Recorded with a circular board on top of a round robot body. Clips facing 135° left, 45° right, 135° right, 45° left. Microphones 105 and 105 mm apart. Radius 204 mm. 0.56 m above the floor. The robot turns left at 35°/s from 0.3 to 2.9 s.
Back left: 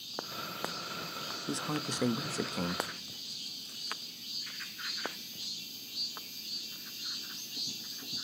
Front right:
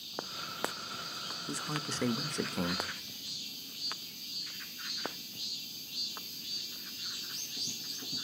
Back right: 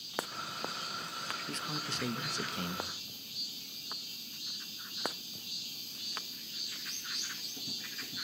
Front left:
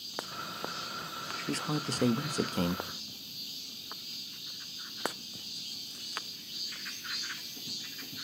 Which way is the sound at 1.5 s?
85° left.